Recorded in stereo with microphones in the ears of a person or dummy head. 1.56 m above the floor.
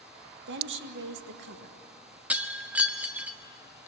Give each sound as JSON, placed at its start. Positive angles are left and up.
{"t": 0.5, "sound": "a woman speaking", "side_deg": -60, "distance_m": 1.6}
{"t": 2.3, "sound": "breaking glass", "side_deg": -5, "distance_m": 1.1}